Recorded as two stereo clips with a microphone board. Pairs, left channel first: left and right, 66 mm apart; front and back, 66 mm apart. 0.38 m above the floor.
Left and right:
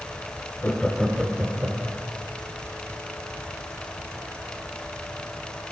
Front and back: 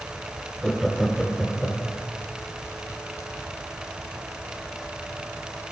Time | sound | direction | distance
0.6 | laughter | 100° left | 0.9 m